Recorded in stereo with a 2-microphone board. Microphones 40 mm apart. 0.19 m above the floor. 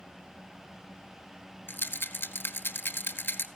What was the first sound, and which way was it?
A rattle, 75° left (ahead or behind).